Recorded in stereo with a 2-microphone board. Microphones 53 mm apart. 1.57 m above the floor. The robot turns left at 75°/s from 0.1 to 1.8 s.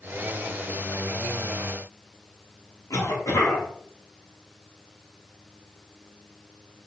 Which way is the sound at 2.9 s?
85° left.